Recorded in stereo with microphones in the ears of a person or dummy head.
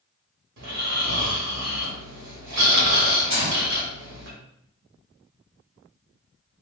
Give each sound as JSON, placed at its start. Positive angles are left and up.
{"t": 0.6, "sound": "snoring", "side_deg": -65, "distance_m": 1.1}
{"t": 3.3, "sound": "a gunshot", "side_deg": -40, "distance_m": 2.0}